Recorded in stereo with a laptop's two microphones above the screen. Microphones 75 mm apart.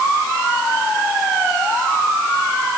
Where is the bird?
No bird in this recording.